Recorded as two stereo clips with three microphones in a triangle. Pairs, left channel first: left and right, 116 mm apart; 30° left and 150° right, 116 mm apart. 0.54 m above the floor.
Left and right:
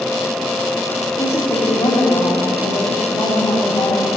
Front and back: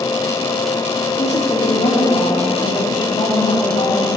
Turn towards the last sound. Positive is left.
turn(degrees=20)